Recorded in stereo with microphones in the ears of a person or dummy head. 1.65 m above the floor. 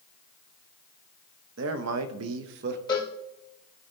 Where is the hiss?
I don't hear a hiss.